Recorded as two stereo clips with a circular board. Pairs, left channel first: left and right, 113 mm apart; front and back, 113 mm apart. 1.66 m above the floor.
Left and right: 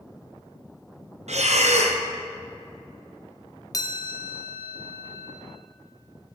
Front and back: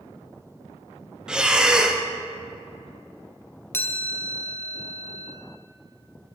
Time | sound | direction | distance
1.3 | breathing | 95° right | 0.6 m
3.7 | a chime | 55° left | 0.5 m